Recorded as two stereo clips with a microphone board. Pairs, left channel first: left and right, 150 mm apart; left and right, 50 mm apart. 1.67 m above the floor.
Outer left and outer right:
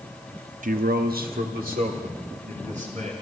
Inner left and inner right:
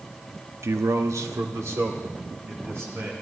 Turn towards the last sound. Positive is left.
turn(degrees=-55)  # may be behind; listen again after turning